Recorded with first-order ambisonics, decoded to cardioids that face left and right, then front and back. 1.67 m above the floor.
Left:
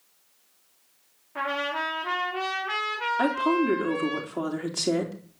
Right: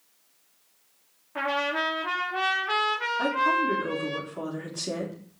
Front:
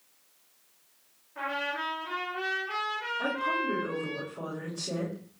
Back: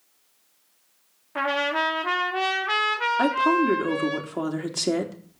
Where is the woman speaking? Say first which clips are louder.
Even, back 8 dB; 155° left, 3.5 m.